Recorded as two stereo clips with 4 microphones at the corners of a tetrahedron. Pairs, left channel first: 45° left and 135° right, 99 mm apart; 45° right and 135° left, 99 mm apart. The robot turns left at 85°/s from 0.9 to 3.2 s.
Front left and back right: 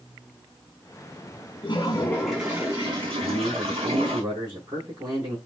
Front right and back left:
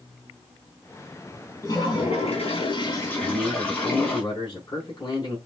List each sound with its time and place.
1.6 s a toilet flushing: 15° left, 4.5 m; by 4.2 s 120° right, 4.5 m
3.2 s a man speaking: 90° right, 7 m